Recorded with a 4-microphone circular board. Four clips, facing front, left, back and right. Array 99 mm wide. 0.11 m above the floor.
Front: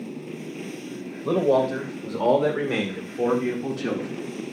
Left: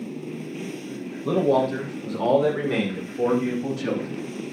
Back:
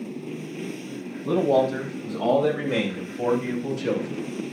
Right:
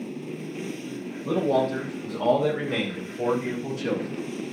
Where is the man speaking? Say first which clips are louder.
Left 3 dB, even; 35° left, 5 m; by 4.2 s 45° left, 6.5 m.